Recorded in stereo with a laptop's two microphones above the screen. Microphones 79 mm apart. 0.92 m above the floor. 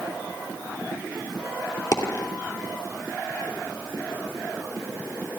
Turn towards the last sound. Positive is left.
turn(degrees=50)  # may be behind; listen again after turning